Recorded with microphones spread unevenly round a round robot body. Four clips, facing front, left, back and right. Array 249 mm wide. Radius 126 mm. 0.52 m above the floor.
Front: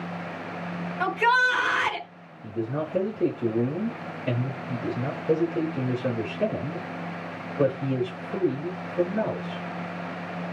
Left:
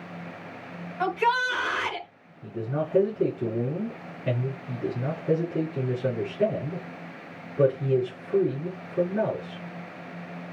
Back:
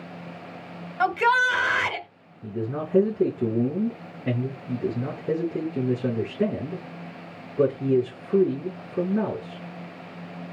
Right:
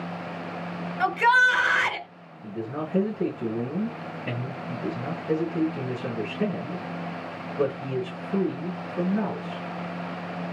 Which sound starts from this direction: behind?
A man speaking, at 2.4 s.